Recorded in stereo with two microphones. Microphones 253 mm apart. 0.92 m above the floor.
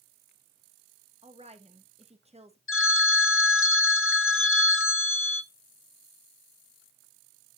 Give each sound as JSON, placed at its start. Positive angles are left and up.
{"t": 1.2, "sound": "a woman speaking", "side_deg": -25, "distance_m": 1.3}
{"t": 2.7, "sound": "a phone ringing", "side_deg": 55, "distance_m": 0.5}